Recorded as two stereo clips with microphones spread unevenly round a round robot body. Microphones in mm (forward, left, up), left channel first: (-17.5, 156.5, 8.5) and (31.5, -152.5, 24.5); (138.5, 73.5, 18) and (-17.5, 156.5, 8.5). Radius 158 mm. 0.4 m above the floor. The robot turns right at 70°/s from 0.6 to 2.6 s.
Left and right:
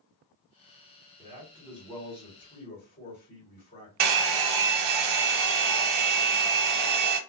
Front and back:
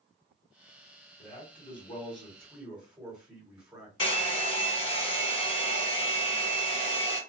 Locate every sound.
1.2 s a man speaking: 20° right, 1.7 m; by 3.9 s 80° left, 1.7 m
4.0 s a hair dryer: 70° right, 0.6 m